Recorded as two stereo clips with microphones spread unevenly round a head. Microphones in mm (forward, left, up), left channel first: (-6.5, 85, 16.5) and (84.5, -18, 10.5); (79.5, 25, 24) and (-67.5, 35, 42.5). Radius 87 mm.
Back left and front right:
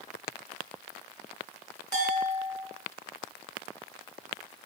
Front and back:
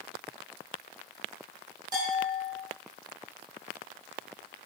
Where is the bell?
120° right, 3 m.